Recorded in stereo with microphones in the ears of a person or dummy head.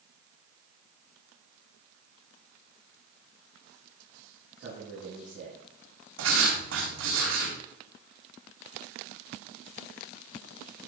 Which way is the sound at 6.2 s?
75° right (ahead or behind).